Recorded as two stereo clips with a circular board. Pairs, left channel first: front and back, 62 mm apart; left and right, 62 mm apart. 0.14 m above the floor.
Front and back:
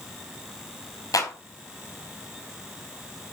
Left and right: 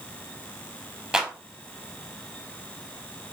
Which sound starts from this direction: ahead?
A clap, at 1.1 s.